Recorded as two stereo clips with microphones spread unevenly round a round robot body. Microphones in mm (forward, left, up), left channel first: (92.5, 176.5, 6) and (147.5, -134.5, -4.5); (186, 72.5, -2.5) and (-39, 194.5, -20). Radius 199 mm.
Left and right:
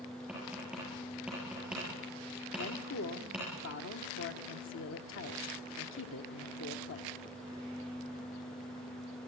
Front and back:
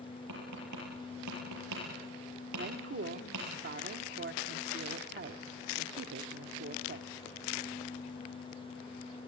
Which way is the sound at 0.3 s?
165° right.